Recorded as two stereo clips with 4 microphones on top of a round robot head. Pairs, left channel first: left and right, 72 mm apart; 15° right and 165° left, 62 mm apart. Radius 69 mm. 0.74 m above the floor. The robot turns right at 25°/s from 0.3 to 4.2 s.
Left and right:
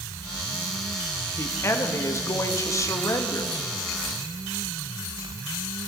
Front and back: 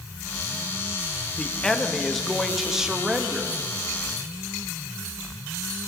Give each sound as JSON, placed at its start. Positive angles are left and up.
{"t": 1.4, "sound": "a man speaking", "azimuth_deg": 55, "distance_m": 1.3}